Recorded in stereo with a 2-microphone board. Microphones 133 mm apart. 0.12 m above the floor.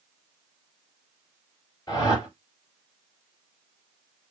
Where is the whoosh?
30° left (ahead or behind), 2 m.